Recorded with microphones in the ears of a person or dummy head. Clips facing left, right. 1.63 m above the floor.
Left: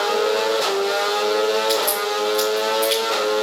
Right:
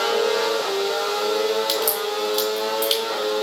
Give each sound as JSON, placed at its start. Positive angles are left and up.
{"t": 1.7, "sound": "a crack", "side_deg": -25, "distance_m": 2.5}